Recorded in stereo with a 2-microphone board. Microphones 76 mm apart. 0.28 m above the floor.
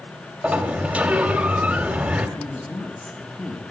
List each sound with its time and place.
0.4 s a sliding door: 15° right (ahead or behind), 1.4 m
2.4 s a woman speaking: 15° left (ahead or behind), 2 m